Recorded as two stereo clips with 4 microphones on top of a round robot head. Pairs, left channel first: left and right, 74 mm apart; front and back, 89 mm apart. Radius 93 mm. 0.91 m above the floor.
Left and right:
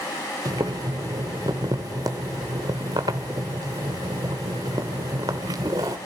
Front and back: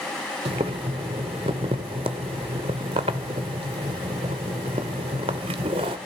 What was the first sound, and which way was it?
Boiling, 145° right.